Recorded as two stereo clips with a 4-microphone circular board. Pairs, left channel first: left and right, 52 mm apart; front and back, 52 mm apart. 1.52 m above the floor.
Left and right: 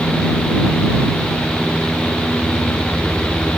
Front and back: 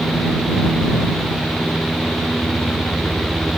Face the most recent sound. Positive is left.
No sound to turn to.